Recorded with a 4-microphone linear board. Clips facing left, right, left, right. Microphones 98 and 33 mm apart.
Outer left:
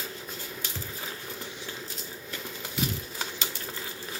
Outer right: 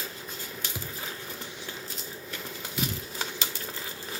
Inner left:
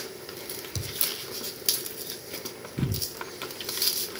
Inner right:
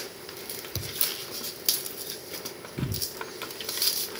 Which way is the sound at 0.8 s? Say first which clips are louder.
Even, even; 10° right (ahead or behind).